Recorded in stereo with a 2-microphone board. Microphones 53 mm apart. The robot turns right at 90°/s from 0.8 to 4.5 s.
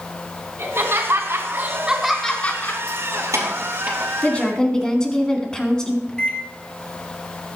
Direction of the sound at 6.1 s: 15° left (ahead or behind).